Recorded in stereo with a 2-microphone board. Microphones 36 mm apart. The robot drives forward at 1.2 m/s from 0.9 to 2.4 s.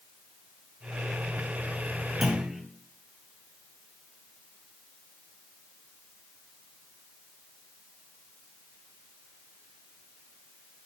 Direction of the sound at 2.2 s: 5° right (ahead or behind).